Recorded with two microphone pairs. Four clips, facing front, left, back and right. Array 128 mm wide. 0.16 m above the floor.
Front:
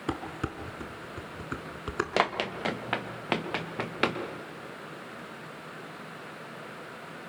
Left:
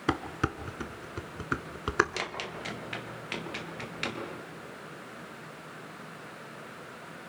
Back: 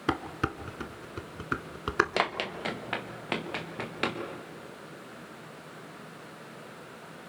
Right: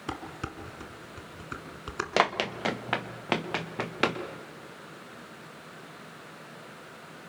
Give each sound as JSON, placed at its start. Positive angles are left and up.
{"t": 0.1, "sound": "dishes clattering", "azimuth_deg": 130, "distance_m": 1.2}
{"t": 2.2, "sound": "running footsteps", "azimuth_deg": -90, "distance_m": 1.6}